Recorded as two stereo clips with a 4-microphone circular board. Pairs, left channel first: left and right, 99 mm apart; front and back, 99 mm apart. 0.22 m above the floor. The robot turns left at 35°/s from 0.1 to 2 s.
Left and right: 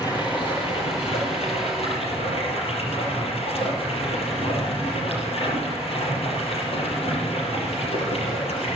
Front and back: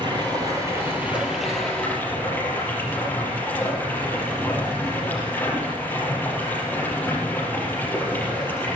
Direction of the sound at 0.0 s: 140° left.